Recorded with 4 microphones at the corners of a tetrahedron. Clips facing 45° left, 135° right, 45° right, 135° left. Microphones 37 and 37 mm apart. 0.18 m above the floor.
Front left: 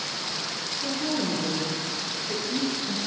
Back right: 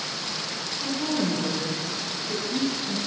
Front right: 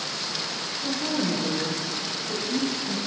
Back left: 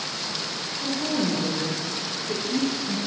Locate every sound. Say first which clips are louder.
0.8 s a woman speaking: back right 2 dB, back left 2 dB; 160° left, 2 m; by 3.0 s 120° left, 2.0 m